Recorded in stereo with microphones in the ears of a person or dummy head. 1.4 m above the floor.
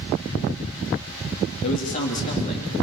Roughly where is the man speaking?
Left.